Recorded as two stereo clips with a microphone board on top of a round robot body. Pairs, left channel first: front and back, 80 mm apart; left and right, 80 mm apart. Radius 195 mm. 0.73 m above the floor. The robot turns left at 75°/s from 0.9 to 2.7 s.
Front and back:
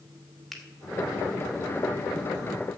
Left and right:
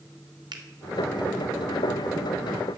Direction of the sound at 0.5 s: 85° right.